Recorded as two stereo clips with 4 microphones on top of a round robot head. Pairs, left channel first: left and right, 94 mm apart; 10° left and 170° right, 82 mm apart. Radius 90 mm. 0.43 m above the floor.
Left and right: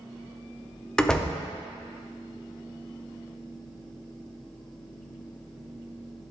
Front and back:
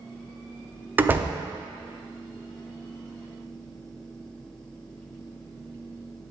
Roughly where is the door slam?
Behind.